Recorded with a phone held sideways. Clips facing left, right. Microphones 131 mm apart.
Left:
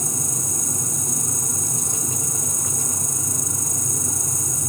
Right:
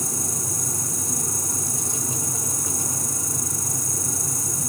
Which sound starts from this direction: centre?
An insect, at 0.0 s.